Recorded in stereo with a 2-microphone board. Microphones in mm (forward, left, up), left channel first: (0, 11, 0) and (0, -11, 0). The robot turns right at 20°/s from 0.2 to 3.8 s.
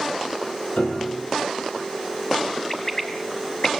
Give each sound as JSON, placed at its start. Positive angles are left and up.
{"t": 0.8, "sound": "a piano", "side_deg": 75, "distance_m": 5.5}
{"t": 2.7, "sound": "a bird", "side_deg": 25, "distance_m": 2.5}